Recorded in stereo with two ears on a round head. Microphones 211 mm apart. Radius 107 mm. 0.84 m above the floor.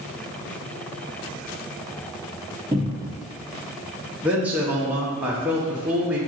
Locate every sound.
2.7 s a cupboard door: 10° right (ahead or behind), 0.8 m
4.2 s a man speaking: 5° right (ahead or behind), 0.7 m